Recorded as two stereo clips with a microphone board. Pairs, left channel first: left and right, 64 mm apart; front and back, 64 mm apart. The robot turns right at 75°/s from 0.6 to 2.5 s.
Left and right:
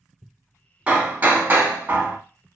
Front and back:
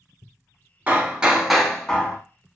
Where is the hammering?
145° right, 0.6 m; by 2.2 s 45° right, 0.6 m.